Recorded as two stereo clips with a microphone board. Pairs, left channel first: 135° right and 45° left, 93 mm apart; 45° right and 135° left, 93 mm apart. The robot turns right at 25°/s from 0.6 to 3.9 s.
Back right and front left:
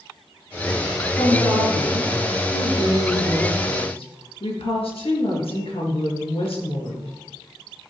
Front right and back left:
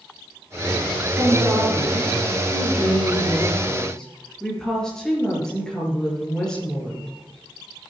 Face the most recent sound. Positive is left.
turn(degrees=-130)